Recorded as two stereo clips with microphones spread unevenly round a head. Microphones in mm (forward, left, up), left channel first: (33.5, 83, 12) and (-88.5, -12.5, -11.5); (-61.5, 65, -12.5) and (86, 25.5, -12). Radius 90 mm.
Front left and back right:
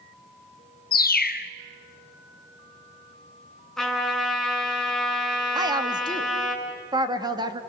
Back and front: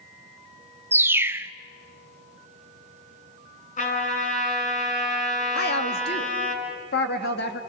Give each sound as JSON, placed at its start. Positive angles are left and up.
{"t": 0.9, "sound": "a bird", "azimuth_deg": 60, "distance_m": 0.8}
{"t": 3.8, "sound": "a trumpet", "azimuth_deg": 130, "distance_m": 6.0}
{"t": 5.5, "sound": "a woman speaking", "azimuth_deg": 160, "distance_m": 1.9}